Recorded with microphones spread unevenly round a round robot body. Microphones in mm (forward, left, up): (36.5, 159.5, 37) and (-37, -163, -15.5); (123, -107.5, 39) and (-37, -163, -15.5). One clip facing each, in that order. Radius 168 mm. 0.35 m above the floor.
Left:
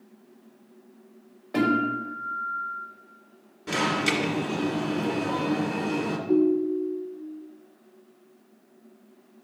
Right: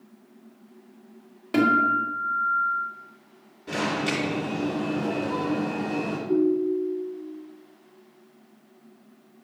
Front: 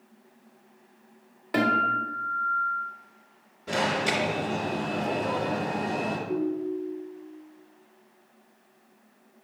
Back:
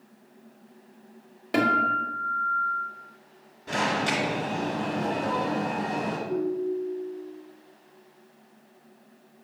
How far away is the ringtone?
About 1.7 m.